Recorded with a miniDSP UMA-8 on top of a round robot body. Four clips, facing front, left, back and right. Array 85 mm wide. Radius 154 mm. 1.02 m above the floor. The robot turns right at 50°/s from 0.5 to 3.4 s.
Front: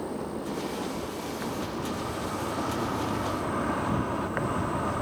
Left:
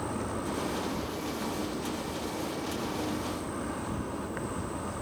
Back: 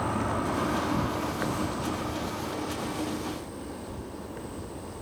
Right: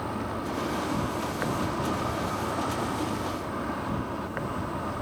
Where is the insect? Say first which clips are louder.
Right 2 dB, back 4 dB; 165° right; by 5.0 s 20° right.